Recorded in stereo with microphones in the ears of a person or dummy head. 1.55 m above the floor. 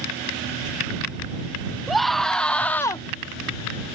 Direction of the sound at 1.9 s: Centre (ahead or behind).